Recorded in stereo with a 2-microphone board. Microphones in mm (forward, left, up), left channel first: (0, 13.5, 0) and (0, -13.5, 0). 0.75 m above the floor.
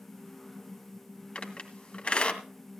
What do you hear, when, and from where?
1.4 s a squeak: 50° left (ahead or behind), 2 m